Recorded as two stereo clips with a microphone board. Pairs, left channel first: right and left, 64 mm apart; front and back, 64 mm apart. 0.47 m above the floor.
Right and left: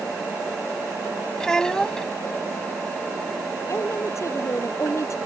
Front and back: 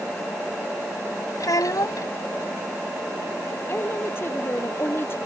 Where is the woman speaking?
55° right.